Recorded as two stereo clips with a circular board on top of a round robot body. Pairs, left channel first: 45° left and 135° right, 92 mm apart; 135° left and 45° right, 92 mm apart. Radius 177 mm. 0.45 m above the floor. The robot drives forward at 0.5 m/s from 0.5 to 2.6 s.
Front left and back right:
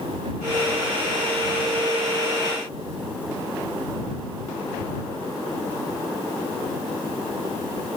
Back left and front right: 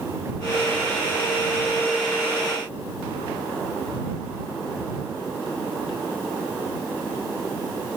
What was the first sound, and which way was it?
Only background noise.